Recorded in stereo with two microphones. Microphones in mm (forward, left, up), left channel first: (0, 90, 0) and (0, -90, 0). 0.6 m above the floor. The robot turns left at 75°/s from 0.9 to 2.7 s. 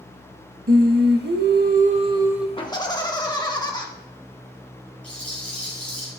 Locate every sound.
0.7 s singing: 60° right, 0.6 m; by 2.5 s 175° right, 0.6 m
2.6 s laughter: 30° left (ahead or behind), 1.3 m; by 3.9 s 25° left (ahead or behind), 1.3 m
5.0 s a rattle: 10° left (ahead or behind), 3.5 m